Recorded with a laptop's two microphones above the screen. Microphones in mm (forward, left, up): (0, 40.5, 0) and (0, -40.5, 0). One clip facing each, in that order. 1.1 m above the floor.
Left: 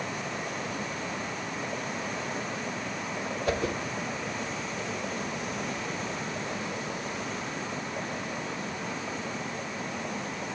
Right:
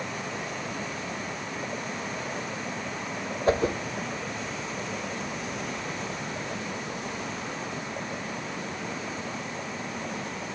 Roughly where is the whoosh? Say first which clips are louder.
Right 6 dB; right.